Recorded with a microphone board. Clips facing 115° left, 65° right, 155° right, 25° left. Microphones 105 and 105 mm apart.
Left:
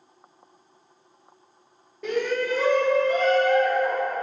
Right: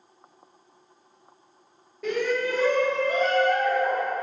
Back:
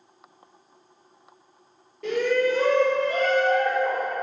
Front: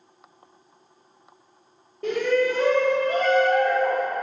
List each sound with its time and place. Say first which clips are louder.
2.0 s a shout: left 1 dB, front 1 dB; 30° left, 1.1 m